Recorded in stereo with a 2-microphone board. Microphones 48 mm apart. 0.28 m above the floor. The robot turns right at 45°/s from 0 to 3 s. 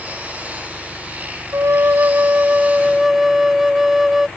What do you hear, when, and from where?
1.5 s a flute: 75° right; by 4.3 s 5° right